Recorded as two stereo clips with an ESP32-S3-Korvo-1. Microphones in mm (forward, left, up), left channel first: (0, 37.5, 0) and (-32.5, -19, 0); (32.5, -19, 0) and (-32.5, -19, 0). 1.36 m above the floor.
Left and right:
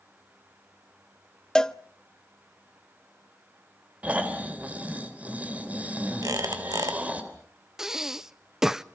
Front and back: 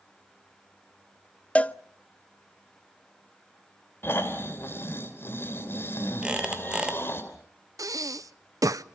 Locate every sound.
1.6 s a cowbell: straight ahead, 0.5 m
4.0 s snoring: 55° right, 3 m
6.2 s a squeak: 105° right, 2 m
7.8 s breathing: 155° left, 0.6 m